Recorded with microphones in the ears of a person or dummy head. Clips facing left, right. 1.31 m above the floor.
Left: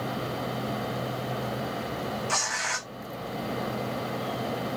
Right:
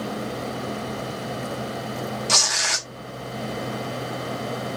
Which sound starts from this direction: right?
Tearing paper, at 2.3 s.